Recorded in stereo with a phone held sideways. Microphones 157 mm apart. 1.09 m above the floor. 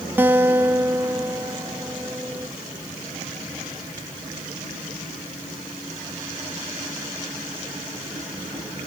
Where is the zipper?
I don't hear a zipper.